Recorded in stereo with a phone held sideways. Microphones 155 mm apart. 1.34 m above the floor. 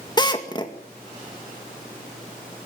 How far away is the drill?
About 2 m.